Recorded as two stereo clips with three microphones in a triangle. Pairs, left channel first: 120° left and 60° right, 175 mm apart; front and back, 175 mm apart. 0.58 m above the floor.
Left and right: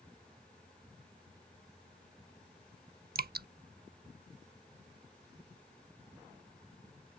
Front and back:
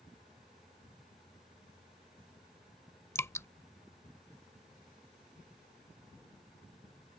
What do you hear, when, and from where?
3.1 s dripping: 75° right